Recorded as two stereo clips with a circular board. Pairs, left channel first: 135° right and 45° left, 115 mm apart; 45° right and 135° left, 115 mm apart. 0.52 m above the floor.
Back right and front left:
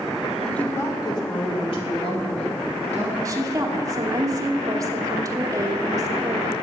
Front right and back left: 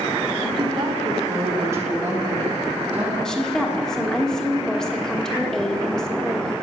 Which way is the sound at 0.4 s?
145° left.